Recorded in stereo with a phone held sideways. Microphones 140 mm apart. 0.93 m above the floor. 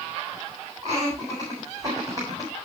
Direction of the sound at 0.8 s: 30° right (ahead or behind).